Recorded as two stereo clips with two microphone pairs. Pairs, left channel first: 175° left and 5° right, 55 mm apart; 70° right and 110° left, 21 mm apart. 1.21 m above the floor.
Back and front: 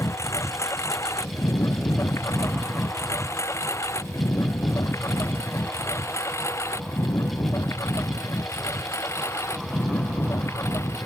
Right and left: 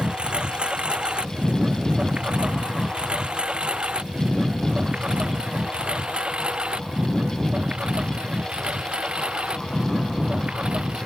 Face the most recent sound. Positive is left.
turn(degrees=140)